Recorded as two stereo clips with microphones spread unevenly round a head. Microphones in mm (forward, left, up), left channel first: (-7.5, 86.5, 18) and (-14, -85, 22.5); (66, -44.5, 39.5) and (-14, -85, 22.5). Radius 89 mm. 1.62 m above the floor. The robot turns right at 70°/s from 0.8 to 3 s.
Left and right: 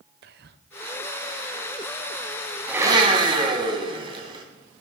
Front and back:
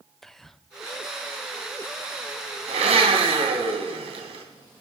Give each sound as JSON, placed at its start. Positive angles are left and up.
{"t": 0.2, "sound": "whispering", "azimuth_deg": -55, "distance_m": 0.8}
{"t": 2.7, "sound": "a blender", "azimuth_deg": -175, "distance_m": 3.0}